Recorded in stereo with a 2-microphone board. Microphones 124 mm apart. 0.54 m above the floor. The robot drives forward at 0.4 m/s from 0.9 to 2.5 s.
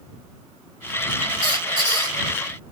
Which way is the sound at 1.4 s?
40° right (ahead or behind).